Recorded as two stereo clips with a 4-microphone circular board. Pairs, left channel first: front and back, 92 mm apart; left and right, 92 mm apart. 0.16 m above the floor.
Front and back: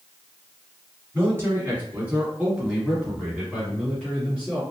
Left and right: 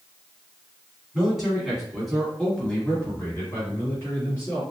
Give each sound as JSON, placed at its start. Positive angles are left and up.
{"t": 1.1, "sound": "a man speaking", "azimuth_deg": -165, "distance_m": 1.8}